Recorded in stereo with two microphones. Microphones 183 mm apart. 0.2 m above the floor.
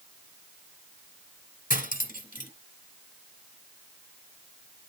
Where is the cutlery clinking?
50° left (ahead or behind), 1.3 m.